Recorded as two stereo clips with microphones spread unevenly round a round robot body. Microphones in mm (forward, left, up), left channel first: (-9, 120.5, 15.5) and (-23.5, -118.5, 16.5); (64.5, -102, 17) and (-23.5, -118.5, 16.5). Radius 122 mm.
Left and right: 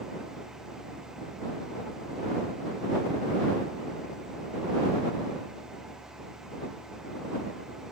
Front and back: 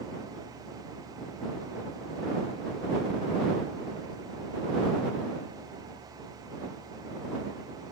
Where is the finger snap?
I don't hear a finger snap.